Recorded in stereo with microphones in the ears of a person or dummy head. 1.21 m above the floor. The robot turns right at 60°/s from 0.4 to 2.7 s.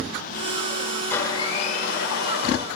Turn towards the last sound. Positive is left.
turn(degrees=110)